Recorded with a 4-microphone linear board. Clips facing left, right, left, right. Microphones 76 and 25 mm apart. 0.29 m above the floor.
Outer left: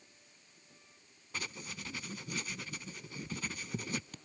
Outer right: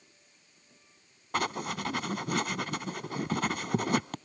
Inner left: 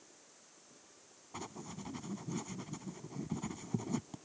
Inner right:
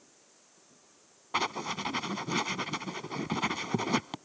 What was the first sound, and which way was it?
Writing, 60° right (ahead or behind).